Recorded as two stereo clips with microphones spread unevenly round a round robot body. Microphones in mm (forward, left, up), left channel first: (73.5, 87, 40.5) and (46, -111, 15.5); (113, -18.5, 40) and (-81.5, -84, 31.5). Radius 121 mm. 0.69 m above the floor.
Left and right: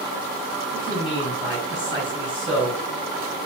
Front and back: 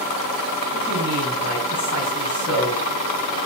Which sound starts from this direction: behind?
A man speaking, at 0.7 s.